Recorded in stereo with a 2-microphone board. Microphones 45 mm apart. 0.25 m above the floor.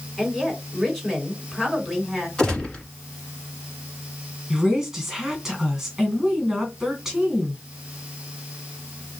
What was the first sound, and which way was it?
A woman speaking, centre (ahead or behind).